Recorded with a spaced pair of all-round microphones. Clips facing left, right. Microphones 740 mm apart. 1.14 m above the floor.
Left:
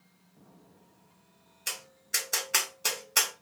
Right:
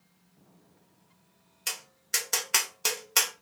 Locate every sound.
1.7 s tapping: 35° right (ahead or behind), 0.8 m